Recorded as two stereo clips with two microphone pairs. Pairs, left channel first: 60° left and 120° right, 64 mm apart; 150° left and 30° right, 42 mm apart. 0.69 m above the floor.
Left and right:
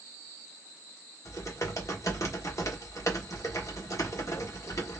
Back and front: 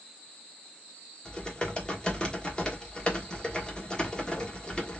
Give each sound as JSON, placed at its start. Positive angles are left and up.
{"t": 1.2, "sound": "typing on a keyboard", "azimuth_deg": 85, "distance_m": 1.3}